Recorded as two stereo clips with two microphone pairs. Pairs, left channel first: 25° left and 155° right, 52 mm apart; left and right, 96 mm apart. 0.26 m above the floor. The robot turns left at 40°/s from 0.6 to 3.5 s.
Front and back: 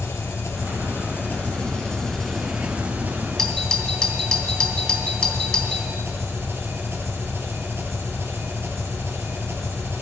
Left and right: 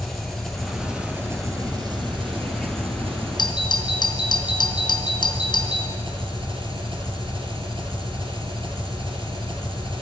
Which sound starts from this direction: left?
A doorbell, at 3.4 s.